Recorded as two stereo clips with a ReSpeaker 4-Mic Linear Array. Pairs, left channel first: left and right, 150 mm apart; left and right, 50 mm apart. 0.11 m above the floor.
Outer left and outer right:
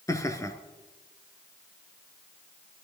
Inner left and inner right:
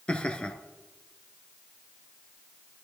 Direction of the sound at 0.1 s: 20° left (ahead or behind).